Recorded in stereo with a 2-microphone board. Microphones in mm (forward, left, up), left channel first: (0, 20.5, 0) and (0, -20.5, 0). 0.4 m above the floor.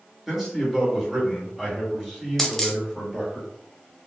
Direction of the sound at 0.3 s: 10° right (ahead or behind).